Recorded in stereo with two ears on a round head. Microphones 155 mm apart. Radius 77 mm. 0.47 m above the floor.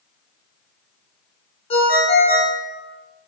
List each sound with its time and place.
1.7 s a ringtone: 35° left (ahead or behind), 0.6 m